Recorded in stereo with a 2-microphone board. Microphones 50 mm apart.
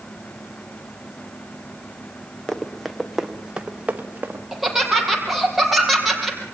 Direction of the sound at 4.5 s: 5° right (ahead or behind).